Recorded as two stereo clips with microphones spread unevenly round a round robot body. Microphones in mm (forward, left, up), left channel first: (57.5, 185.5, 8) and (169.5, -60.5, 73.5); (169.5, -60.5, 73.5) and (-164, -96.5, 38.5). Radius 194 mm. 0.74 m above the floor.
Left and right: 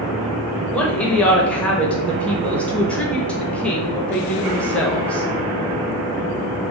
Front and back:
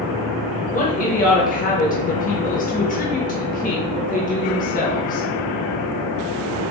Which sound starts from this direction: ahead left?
A woman speaking, at 0.7 s.